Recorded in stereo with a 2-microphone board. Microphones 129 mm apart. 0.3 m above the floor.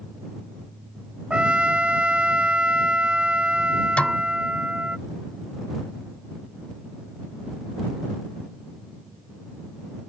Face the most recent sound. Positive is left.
turn(degrees=10)  # may be behind; listen again after turning